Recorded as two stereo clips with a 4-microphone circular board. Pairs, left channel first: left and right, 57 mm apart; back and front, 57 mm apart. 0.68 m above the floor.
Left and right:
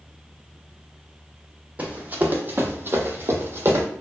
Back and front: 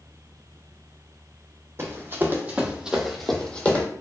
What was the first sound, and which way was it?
Running footsteps, 35° right.